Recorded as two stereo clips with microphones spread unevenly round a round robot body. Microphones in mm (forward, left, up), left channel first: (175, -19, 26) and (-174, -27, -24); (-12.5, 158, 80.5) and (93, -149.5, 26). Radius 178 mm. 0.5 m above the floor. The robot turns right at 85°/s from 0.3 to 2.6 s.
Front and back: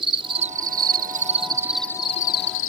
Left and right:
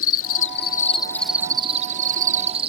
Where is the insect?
130° left; by 2.7 s 30° right.